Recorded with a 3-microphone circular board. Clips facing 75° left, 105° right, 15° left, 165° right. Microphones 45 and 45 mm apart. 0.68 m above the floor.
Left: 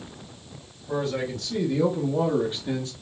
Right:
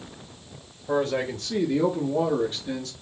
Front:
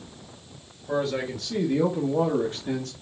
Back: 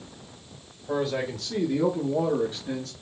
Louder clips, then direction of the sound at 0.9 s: Right 3 dB, front 1 dB; 85° right.